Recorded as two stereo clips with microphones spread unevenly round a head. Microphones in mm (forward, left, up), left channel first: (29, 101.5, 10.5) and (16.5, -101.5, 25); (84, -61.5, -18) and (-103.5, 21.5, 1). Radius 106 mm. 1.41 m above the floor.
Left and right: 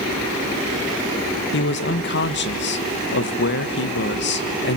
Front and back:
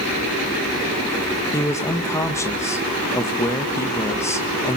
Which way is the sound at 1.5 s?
55° left.